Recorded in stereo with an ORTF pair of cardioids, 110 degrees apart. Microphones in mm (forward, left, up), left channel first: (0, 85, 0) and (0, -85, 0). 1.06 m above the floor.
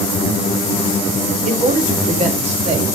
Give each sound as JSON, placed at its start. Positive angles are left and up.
{"t": 1.4, "sound": "a man speaking", "azimuth_deg": -45, "distance_m": 2.0}